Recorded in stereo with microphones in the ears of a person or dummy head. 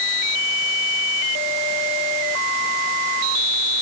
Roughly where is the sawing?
No sawing in this recording.